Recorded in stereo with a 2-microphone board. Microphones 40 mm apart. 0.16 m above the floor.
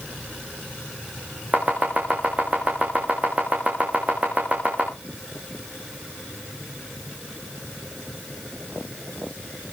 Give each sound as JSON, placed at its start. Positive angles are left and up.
{"t": 1.5, "sound": "chopping", "side_deg": -30, "distance_m": 6.0}